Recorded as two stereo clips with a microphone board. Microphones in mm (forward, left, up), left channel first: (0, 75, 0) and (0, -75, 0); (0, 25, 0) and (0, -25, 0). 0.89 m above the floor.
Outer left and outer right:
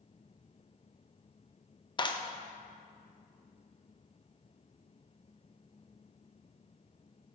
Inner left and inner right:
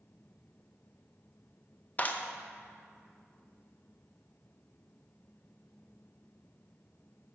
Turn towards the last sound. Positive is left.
turn(degrees=30)  # may be behind; listen again after turning